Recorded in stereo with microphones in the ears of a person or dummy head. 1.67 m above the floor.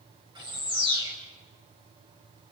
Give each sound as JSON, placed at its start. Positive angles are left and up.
{"t": 0.3, "sound": "a bird", "side_deg": -20, "distance_m": 6.0}